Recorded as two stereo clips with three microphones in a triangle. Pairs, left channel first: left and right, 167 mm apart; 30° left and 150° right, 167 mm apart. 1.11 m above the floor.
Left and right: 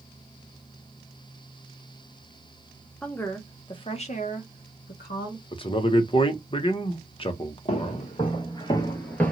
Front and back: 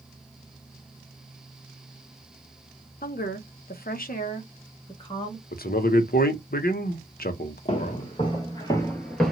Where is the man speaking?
40° left, 0.7 m.